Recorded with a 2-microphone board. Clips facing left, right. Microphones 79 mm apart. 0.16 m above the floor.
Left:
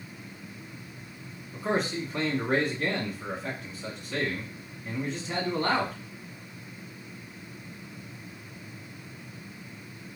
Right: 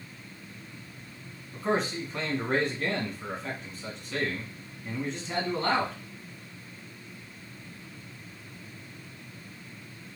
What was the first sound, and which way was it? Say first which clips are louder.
A man speaking: even; 5° left (ahead or behind).